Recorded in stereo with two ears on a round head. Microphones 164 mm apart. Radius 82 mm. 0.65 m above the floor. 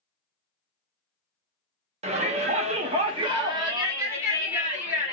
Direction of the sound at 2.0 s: 35° right (ahead or behind).